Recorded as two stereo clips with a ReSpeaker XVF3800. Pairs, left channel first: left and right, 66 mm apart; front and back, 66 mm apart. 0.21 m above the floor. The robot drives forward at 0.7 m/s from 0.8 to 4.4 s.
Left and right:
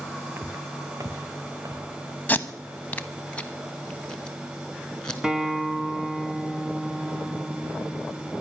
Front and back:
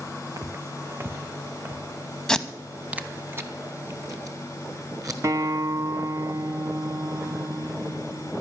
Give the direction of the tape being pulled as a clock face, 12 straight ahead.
10 o'clock.